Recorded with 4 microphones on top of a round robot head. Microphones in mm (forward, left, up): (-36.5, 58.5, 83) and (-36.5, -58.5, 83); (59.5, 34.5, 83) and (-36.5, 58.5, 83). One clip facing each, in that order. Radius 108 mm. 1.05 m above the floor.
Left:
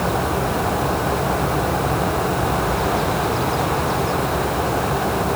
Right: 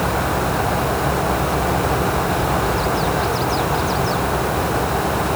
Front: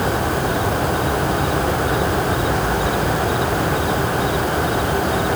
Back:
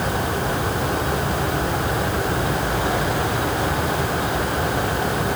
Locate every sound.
Only background noise.